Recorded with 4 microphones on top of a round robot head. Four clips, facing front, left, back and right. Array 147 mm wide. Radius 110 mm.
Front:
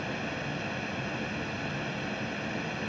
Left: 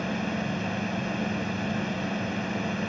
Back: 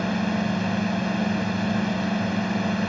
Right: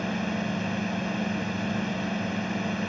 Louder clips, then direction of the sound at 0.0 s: Even, back 10 dB; 175° right.